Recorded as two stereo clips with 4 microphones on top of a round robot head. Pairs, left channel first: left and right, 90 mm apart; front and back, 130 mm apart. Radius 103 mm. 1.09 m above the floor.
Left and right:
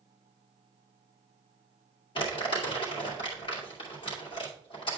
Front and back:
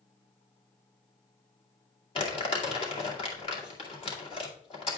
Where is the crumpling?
45° left, 2.5 m.